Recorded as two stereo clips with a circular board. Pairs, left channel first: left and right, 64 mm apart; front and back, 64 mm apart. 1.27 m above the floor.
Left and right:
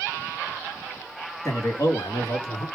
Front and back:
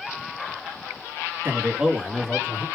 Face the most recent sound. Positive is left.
turn(degrees=65)